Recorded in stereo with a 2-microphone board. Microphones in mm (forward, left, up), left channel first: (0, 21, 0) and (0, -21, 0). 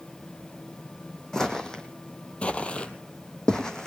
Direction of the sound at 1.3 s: 15° left (ahead or behind).